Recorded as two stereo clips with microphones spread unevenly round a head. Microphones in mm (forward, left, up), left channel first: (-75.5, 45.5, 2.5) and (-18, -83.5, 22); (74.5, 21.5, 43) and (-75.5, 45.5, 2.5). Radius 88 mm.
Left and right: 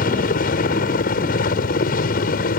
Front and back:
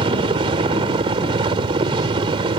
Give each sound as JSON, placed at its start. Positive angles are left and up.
{"t": 0.0, "sound": "a helicopter", "azimuth_deg": 120}